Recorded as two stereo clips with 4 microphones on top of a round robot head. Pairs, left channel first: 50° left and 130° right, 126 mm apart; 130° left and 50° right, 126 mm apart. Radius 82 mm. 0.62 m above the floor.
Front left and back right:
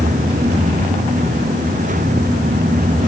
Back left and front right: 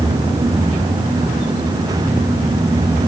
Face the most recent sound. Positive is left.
No sound to turn to.